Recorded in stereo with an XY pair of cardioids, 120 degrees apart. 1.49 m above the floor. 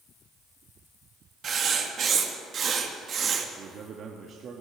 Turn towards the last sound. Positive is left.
turn(degrees=-50)